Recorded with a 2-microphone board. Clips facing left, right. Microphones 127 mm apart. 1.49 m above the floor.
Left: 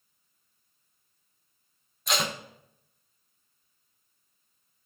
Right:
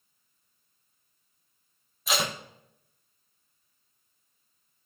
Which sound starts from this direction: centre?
Tape being pulled, at 2.1 s.